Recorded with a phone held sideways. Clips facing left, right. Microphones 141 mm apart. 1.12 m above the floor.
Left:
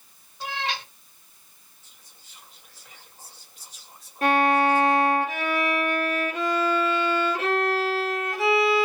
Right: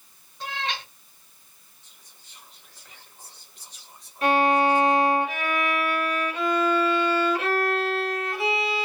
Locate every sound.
0.4 s a cat meowing: 5° left (ahead or behind), 2 m
1.8 s whispering: 5° left (ahead or behind), 1.9 m
4.2 s a violin: 45° left (ahead or behind), 1.5 m